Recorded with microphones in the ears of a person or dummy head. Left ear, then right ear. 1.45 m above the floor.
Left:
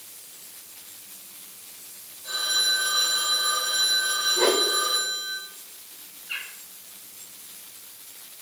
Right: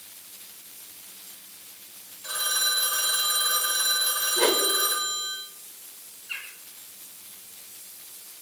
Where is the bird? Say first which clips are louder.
Left 2 dB; centre (ahead or behind), 3.5 m.